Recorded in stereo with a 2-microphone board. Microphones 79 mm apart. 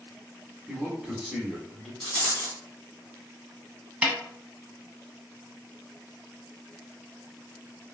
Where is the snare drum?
15° right (ahead or behind), 0.9 m.